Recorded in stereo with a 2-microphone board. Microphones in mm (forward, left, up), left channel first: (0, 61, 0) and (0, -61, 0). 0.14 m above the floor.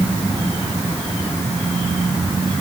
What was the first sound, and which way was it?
Only background noise.